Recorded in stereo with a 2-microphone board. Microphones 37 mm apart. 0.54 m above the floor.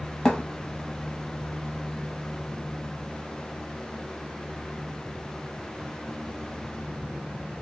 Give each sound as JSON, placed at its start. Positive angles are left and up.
{"t": 0.2, "sound": "a thud", "side_deg": 15, "distance_m": 0.7}